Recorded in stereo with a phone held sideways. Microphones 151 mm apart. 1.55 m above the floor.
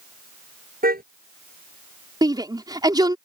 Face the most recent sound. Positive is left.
turn(degrees=-25)  # may be behind; listen again after turning